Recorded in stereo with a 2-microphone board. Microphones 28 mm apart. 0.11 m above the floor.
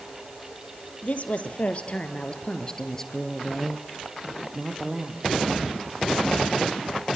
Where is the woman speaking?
55° left (ahead or behind), 3 m; by 5.5 s 35° right (ahead or behind), 3 m.